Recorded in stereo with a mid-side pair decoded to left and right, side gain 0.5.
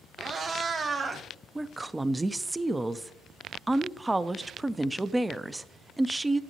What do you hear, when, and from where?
0.2 s a cat meowing: 50° right, 2.0 m; by 1.2 s 25° right, 1.9 m
1.6 s a woman speaking: 15° right, 0.5 m